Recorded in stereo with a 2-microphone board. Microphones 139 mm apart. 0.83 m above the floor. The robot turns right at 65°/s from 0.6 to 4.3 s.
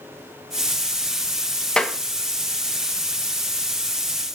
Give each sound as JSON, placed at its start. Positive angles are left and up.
{"t": 1.8, "sound": "a clap", "side_deg": 5, "distance_m": 0.6}